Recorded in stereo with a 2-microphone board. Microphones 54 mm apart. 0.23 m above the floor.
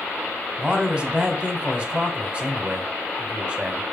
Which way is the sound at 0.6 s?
20° right (ahead or behind).